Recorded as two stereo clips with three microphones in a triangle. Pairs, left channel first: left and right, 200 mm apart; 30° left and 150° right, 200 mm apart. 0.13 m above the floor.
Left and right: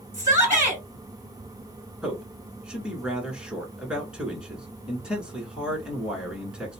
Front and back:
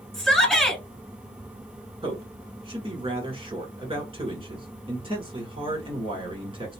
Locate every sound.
0.1 s a shout: 50° right, 1.1 m
2.0 s a man speaking: 170° right, 1.4 m